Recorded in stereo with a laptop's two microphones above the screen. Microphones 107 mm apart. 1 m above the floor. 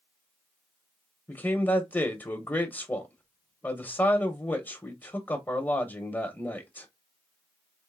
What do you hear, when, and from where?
1.3 s a man speaking: 20° left (ahead or behind), 0.9 m